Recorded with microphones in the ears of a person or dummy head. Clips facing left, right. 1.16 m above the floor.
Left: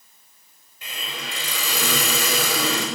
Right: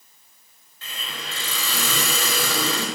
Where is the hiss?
10° left (ahead or behind), 7 m.